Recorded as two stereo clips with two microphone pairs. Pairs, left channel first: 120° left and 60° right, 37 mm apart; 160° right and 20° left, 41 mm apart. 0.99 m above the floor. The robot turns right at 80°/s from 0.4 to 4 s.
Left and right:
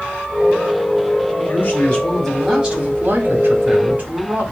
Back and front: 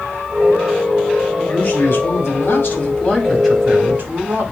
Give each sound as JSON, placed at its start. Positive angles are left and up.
{"t": 1.4, "sound": "a man speaking", "azimuth_deg": 140, "distance_m": 4.0}